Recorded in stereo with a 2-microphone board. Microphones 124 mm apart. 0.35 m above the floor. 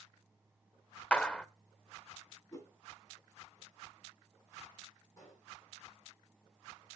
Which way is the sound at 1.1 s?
10° left (ahead or behind).